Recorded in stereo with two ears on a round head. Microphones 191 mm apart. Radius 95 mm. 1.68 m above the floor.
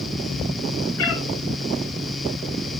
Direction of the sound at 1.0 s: 75° left (ahead or behind).